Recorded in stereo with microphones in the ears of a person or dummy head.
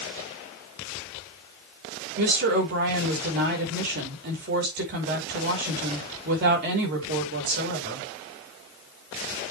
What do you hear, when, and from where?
2.2 s a woman speaking: 55° right (ahead or behind), 5 m